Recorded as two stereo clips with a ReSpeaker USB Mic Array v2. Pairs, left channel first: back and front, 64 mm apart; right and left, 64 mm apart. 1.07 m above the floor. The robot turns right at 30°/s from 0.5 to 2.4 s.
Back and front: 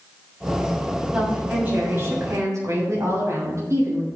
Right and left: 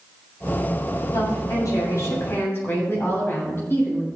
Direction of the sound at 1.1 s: 75° right.